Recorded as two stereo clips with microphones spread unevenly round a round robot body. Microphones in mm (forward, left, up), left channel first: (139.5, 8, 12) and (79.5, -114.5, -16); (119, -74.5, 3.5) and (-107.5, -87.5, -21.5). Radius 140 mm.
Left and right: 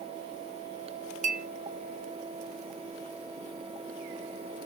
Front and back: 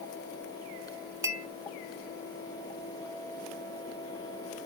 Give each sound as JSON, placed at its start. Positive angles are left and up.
{"t": 1.2, "sound": "a clink", "azimuth_deg": -100, "distance_m": 0.6}